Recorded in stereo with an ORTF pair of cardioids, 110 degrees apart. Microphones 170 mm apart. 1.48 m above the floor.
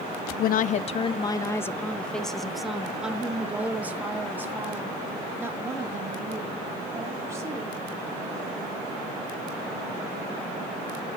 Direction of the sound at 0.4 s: 60° left.